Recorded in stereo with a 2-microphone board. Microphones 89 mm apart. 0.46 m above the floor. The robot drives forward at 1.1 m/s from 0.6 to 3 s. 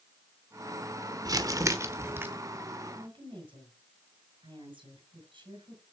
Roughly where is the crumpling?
Right.